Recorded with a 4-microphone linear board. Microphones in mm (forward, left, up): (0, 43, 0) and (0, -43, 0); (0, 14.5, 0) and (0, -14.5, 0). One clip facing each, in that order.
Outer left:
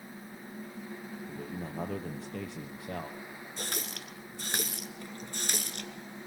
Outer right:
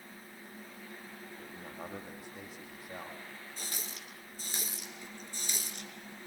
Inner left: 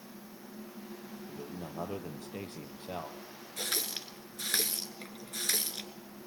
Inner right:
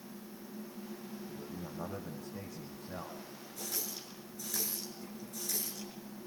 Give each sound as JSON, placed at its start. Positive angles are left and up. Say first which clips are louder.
{"t": 1.3, "sound": "a man speaking", "louder": "outer left 10 dB, inner left 2 dB", "side_deg": 70, "distance_m": 5.0}
{"t": 3.6, "sound": "a running tap", "louder": "outer left 9 dB, inner left 7 dB", "side_deg": 65, "distance_m": 1.7}